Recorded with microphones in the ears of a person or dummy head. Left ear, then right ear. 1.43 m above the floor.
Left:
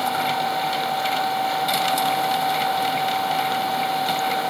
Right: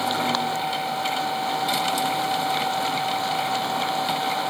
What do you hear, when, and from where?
0.0 s a machine running: 10° left (ahead or behind)